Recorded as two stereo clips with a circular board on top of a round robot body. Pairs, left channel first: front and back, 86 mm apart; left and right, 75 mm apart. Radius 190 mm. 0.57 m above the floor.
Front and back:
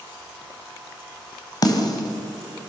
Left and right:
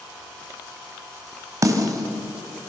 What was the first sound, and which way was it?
A snare drum, 45° right.